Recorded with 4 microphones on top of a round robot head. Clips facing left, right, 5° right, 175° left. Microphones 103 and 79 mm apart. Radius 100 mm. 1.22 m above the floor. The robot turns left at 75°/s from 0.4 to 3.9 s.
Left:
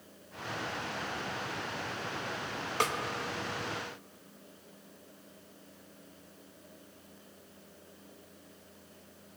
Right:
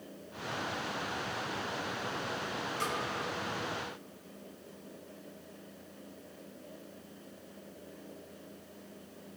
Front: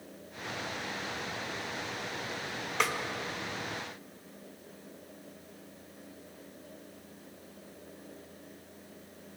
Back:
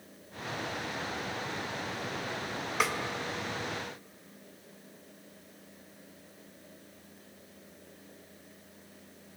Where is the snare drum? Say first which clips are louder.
Left 6 dB, even; 90° left, 0.7 m; by 3.0 s 80° left, 0.7 m.